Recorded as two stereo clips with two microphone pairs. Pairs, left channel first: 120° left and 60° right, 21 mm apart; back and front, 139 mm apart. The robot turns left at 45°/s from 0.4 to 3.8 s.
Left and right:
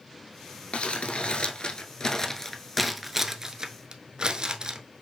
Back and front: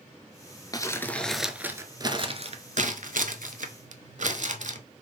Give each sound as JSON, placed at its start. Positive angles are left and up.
{"t": 0.7, "sound": "crumpling", "azimuth_deg": 115, "distance_m": 0.6}